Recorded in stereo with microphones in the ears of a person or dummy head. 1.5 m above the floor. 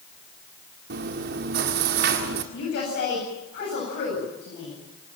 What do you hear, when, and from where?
0.9 s chewing: 55° right (ahead or behind), 1.6 m
2.5 s a woman speaking: 50° left (ahead or behind), 9 m